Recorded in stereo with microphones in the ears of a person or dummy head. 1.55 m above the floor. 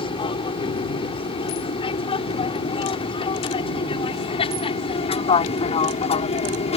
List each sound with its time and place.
0.0 s an aircraft: 30° left (ahead or behind)